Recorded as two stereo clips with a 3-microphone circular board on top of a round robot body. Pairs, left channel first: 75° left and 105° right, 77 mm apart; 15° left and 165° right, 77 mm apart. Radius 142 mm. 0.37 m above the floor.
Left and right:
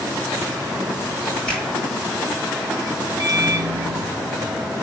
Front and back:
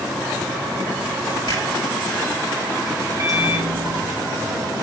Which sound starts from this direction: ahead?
A finger snap, at 1.5 s.